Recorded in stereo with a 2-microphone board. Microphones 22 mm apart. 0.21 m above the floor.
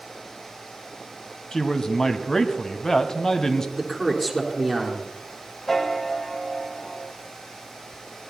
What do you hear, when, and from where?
1.5 s a man speaking: 25° left (ahead or behind), 1.2 m
3.8 s a man speaking: 10° left (ahead or behind), 3.5 m
5.7 s a piano: 10° left (ahead or behind), 1.0 m